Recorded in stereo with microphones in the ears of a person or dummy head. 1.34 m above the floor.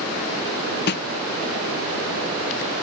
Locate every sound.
0.9 s a snare drum: 55° left (ahead or behind)